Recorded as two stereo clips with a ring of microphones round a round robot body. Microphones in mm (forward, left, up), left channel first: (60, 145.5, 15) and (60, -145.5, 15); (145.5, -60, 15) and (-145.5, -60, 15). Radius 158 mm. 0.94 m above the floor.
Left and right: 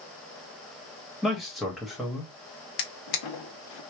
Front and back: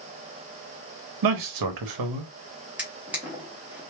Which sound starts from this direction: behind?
A man speaking, at 1.2 s.